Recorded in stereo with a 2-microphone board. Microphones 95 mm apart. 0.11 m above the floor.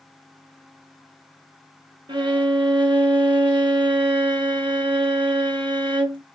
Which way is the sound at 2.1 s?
60° right (ahead or behind).